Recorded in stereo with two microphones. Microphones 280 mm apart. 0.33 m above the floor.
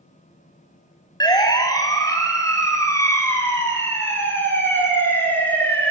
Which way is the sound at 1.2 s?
15° left (ahead or behind).